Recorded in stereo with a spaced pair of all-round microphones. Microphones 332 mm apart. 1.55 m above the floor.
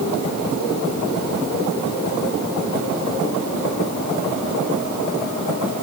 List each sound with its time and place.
Only background noise.